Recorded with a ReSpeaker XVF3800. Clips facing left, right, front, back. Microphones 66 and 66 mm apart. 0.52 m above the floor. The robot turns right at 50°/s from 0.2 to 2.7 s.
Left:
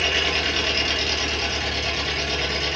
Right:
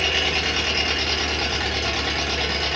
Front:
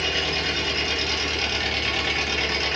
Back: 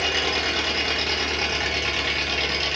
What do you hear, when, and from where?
0.0 s an engine running: straight behind, 0.8 m; by 2.8 s 55° right, 0.8 m